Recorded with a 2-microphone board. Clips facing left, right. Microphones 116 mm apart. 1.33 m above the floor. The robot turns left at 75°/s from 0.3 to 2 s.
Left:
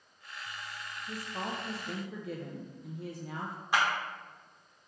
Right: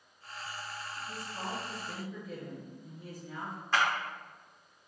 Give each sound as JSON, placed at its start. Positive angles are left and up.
{"t": 1.1, "sound": "a woman speaking", "azimuth_deg": 150, "distance_m": 0.6}
{"t": 3.7, "sound": "a clap", "side_deg": 10, "distance_m": 1.1}